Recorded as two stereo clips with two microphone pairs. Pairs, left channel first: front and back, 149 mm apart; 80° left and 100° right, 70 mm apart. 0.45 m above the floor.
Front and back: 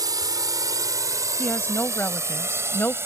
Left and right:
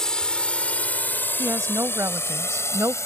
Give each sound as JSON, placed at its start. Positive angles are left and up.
{"t": 0.0, "sound": "a drone", "azimuth_deg": 150}
{"t": 1.4, "sound": "a woman speaking", "azimuth_deg": -70}